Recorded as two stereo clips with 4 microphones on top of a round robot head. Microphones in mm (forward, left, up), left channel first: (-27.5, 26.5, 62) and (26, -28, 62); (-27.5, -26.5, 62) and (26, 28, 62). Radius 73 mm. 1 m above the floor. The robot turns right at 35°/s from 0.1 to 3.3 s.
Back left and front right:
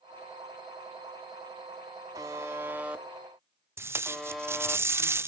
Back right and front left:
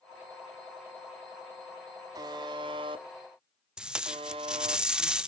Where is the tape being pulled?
25° right, 0.5 m.